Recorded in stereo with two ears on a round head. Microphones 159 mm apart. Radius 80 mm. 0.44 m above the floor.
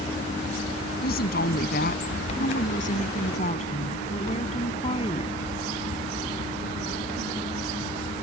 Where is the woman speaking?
55° left (ahead or behind); by 5.5 s 30° left (ahead or behind).